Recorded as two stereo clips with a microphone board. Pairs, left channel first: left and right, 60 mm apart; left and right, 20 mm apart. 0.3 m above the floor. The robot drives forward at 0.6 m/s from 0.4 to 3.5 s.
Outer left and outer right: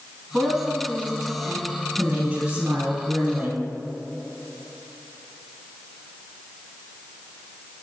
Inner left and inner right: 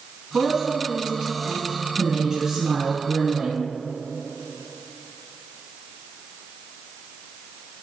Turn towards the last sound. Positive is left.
turn(degrees=-20)  # may be behind; listen again after turning